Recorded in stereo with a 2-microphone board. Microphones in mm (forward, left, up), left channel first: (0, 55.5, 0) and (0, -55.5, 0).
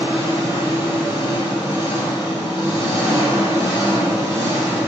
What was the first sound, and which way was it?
An engine running, 45° left (ahead or behind).